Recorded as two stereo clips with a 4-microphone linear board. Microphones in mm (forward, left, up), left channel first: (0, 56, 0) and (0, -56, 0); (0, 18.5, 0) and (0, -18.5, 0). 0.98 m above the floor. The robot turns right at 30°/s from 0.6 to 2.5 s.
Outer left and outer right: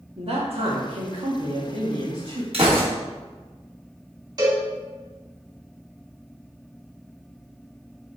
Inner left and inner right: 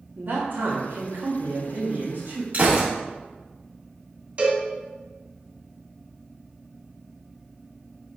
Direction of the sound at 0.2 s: 120° right.